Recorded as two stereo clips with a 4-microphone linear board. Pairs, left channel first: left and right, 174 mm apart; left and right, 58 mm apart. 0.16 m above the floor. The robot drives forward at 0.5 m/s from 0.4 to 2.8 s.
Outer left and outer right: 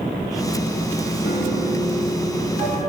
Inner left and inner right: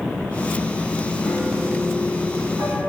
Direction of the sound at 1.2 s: 70° left (ahead or behind).